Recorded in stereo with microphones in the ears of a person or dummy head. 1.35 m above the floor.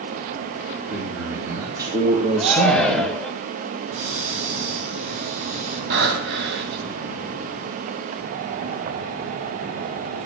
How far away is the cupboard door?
About 7.5 m.